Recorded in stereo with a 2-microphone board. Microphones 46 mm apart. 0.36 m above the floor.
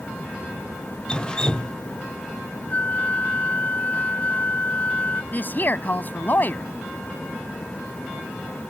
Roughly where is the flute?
Left.